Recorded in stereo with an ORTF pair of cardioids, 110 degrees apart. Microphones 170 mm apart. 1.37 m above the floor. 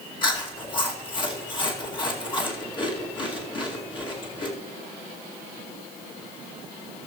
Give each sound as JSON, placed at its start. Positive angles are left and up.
{"t": 0.2, "sound": "chewing", "azimuth_deg": 30, "distance_m": 2.5}